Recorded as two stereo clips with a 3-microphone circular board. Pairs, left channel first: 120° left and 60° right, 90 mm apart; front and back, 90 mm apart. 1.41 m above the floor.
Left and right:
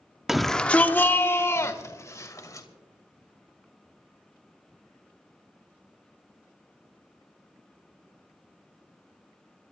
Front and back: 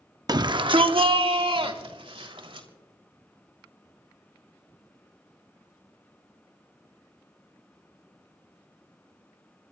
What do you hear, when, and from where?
0.3 s a shout: 145° right, 0.6 m; by 2.7 s 170° left, 2.5 m